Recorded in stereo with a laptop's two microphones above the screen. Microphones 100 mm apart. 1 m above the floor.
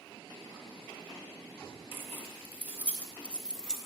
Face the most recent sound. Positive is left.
turn(degrees=-5)  # may be behind; listen again after turning